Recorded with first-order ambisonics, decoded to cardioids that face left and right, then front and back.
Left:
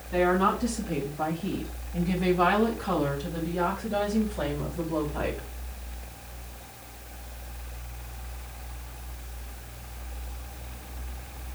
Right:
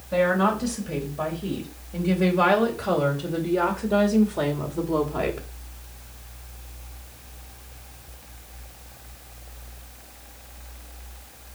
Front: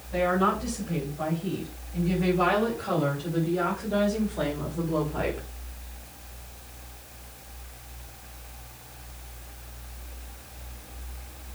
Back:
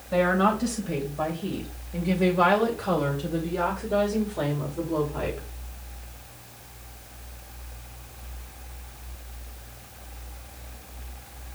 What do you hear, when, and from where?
0.1 s a woman speaking: 145° right, 3.5 m; by 5.5 s 85° right, 2.5 m